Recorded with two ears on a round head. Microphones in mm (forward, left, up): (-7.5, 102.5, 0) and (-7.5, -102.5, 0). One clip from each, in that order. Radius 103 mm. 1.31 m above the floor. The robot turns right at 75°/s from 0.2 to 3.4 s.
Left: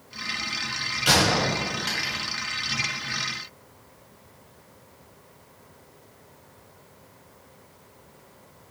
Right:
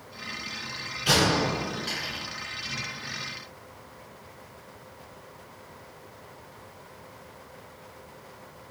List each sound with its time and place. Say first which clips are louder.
1.1 s a gunshot: left 2 dB; 40° left (ahead or behind), 1.4 m; by 2.2 s 15° left (ahead or behind), 1.4 m